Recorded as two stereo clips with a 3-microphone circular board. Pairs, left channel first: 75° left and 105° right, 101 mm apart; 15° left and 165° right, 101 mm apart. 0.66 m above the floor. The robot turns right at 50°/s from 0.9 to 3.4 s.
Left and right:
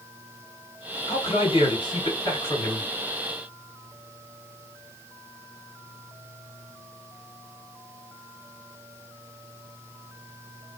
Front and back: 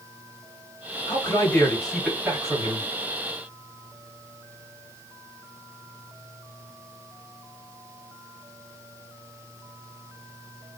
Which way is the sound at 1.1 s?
65° left.